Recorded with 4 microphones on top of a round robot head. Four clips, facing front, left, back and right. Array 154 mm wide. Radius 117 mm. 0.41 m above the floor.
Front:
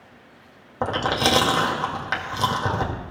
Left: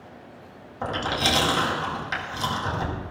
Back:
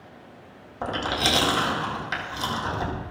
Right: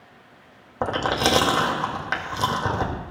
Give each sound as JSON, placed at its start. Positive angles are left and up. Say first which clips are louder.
{"t": 0.8, "sound": "chewing", "louder": "right 4 dB, front 4 dB", "azimuth_deg": -50, "distance_m": 2.0}